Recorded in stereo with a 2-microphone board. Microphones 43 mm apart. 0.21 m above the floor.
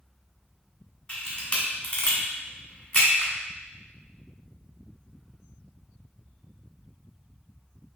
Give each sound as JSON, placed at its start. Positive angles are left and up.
{"t": 1.1, "sound": "a camera shutter", "side_deg": 25, "distance_m": 1.3}